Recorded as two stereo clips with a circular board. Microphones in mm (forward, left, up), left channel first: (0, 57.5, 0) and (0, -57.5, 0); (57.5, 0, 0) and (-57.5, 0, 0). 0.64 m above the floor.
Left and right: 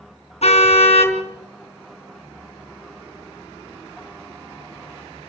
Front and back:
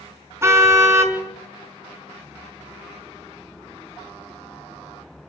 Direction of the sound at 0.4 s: 115° left.